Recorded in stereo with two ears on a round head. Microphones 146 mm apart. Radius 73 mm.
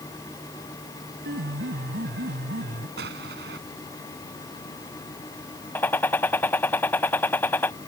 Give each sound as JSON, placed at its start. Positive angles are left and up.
{"t": 1.2, "sound": "a piano", "side_deg": -65}
{"t": 3.0, "sound": "an explosion", "side_deg": -70}
{"t": 5.8, "sound": "a gunshot", "side_deg": 10}